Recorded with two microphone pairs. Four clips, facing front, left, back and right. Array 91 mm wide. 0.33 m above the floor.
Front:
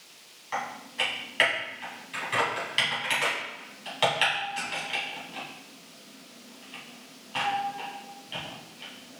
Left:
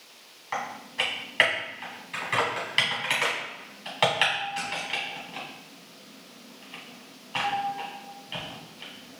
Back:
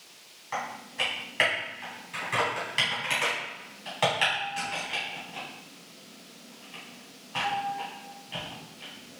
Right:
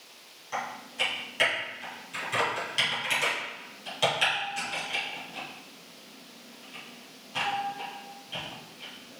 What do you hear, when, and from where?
0.5 s typing on a keyboard: 95° left, 3 m